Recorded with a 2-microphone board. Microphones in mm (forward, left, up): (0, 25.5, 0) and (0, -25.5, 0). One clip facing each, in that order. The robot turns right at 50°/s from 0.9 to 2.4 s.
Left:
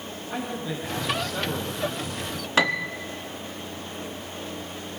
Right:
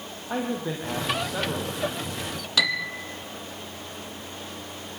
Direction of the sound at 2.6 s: 35° left (ahead or behind).